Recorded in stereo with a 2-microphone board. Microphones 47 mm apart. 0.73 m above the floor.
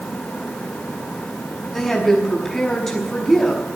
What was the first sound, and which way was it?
A woman speaking, 5° left (ahead or behind).